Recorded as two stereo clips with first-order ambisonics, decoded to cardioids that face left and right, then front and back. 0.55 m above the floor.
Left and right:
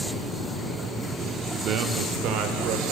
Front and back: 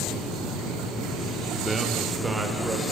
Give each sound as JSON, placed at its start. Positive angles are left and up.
{"t": 1.6, "sound": "a man speaking", "azimuth_deg": -100, "distance_m": 0.8}